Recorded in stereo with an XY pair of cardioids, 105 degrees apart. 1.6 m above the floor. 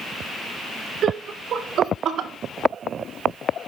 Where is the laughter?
60° right, 1.6 m.